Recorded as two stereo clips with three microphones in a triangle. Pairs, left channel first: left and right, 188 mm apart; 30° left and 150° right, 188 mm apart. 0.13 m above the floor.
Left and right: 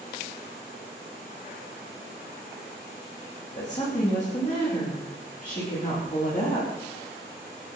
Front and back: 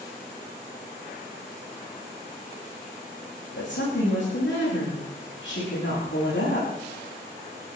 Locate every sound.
3.5 s a woman speaking: 40° left, 9.5 m; by 6.7 s 45° left, 13 m